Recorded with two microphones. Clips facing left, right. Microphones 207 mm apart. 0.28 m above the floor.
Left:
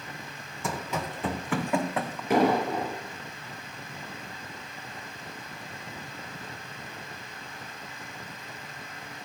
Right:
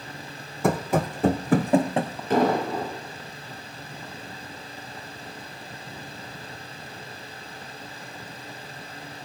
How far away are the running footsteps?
About 1.1 m.